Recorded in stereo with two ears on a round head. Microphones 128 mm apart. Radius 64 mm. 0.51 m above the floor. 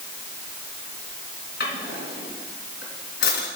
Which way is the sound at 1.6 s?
80° left.